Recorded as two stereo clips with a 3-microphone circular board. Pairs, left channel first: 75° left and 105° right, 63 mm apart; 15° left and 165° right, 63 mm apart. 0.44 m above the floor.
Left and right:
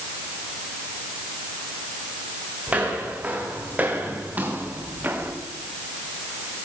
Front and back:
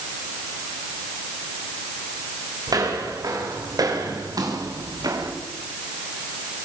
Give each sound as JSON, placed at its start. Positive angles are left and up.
{"t": 2.7, "sound": "footsteps", "azimuth_deg": -170, "distance_m": 8.0}